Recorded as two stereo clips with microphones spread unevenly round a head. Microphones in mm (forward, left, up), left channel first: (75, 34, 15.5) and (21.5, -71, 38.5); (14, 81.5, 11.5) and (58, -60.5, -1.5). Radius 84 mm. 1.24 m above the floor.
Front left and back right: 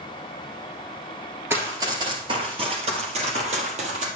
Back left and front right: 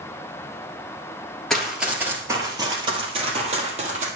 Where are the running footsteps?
170° right, 1.6 m; by 4.1 s 120° right, 2.5 m.